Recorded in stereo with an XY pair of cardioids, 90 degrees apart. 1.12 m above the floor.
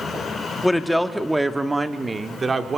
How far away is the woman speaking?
About 2.5 m.